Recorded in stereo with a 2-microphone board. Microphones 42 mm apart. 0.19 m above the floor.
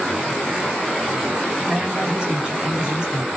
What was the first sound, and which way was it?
A man speaking, 25° right (ahead or behind).